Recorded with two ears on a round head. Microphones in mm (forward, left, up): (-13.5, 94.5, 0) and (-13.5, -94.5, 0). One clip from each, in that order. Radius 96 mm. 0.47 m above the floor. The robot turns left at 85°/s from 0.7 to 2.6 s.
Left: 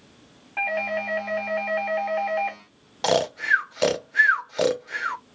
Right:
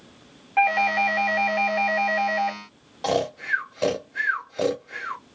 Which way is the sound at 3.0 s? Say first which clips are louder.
Left 3 dB; 45° left (ahead or behind).